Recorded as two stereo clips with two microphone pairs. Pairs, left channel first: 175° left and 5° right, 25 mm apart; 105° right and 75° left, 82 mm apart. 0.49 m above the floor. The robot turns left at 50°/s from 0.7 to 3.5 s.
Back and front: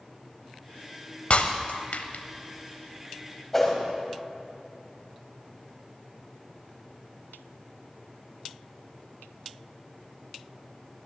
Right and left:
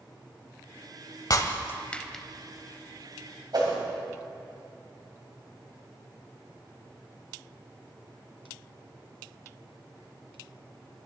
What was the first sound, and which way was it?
Breaking glass, 150° right.